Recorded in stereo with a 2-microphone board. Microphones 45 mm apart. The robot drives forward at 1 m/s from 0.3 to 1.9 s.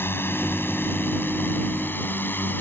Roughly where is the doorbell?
No doorbell in this recording.